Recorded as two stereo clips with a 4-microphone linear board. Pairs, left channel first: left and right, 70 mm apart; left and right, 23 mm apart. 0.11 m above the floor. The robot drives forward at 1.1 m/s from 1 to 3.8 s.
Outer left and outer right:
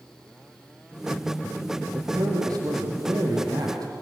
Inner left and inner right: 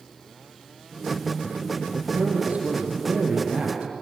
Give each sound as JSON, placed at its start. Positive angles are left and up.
{"t": 1.9, "sound": "a man speaking", "side_deg": -65, "distance_m": 4.5}